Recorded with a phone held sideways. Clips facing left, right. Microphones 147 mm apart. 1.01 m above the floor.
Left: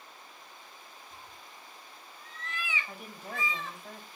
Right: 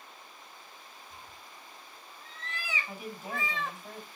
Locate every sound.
1.1 s a cat meowing: 15° right (ahead or behind), 3 m; by 3.8 s 70° right (ahead or behind), 1.5 m
2.9 s a woman speaking: centre (ahead or behind), 5 m